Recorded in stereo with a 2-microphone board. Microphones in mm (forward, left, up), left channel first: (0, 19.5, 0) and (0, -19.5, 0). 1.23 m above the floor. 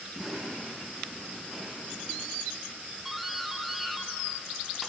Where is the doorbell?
5° right (ahead or behind), 1.7 m.